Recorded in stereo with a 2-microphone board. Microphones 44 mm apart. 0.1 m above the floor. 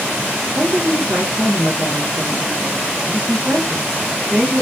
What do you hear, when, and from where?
0.6 s a woman speaking: 40° right (ahead or behind), 5 m